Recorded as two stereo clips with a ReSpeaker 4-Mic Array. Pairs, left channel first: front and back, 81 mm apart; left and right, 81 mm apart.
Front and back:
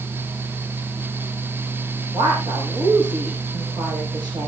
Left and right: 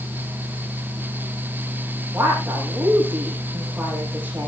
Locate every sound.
2.1 s a woman speaking: 160° right, 8 m